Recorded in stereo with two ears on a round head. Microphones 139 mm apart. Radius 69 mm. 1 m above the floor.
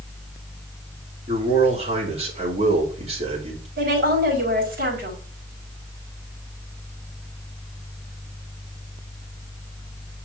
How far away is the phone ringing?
I don't hear a phone ringing.